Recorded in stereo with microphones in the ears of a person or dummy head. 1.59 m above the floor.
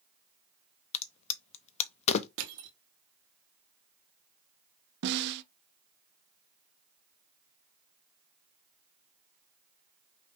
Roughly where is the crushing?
Right.